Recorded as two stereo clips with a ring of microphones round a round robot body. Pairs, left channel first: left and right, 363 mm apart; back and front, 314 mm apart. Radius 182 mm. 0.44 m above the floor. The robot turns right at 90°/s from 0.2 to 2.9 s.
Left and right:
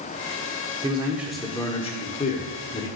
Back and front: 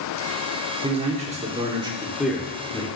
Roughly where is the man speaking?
Ahead right.